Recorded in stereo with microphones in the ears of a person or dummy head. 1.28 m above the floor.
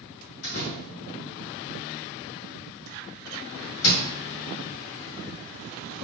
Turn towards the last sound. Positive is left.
turn(degrees=75)  # may be behind; listen again after turning